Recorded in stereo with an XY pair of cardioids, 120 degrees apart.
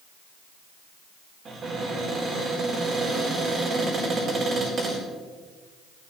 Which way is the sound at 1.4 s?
45° right.